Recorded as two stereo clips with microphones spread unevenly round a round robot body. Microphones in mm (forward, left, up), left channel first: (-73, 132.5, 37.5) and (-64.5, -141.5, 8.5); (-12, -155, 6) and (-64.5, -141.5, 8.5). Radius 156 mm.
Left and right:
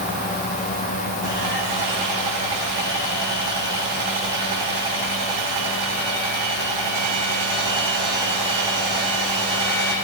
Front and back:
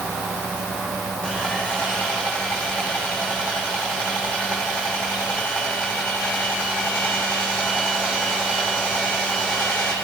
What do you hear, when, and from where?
1.2 s sawing: 80° right, 9 m